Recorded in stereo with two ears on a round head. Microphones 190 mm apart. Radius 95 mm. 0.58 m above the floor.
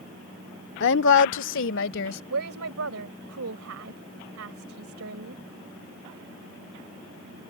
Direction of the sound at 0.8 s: 55° left (ahead or behind).